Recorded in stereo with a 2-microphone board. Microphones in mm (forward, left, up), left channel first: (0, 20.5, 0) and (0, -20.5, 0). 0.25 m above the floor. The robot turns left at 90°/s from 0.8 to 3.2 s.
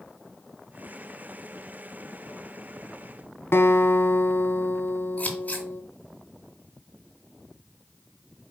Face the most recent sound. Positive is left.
turn(degrees=35)  # may be behind; listen again after turning